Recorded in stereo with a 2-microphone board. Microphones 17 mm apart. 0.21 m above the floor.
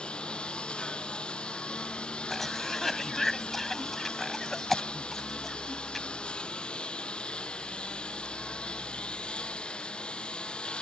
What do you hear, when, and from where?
0.0 s a lawn mower: 90° left
2.3 s a cough: 20° left (ahead or behind)